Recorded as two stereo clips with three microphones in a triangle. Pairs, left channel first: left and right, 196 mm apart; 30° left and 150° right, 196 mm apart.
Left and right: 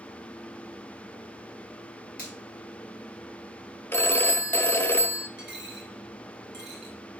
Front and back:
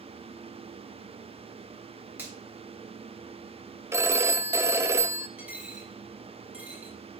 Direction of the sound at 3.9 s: 155° left.